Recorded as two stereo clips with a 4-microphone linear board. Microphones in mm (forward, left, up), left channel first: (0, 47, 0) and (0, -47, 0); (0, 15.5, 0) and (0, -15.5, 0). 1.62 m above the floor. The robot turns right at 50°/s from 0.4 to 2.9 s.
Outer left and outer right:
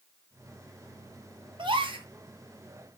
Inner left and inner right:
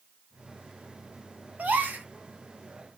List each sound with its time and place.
1.6 s a gasp: 65° right (ahead or behind), 0.8 m; by 2.0 s 85° right, 0.8 m